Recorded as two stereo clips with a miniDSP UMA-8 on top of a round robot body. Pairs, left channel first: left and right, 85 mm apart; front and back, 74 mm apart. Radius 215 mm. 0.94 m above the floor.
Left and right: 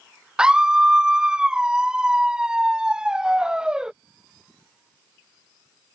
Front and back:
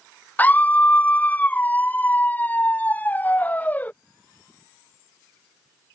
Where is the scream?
25° right.